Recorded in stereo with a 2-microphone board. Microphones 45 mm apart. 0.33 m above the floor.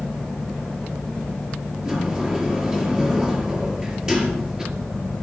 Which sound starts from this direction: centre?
A sliding door, at 1.9 s.